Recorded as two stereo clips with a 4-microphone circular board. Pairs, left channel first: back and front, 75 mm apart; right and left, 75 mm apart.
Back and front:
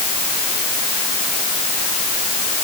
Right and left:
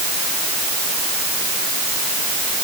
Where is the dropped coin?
I don't hear a dropped coin.